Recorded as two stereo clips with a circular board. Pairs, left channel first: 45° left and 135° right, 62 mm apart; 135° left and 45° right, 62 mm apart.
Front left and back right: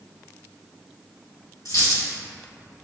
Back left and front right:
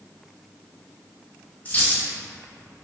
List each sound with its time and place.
1.6 s a dropped coin: 70° left, 1.9 m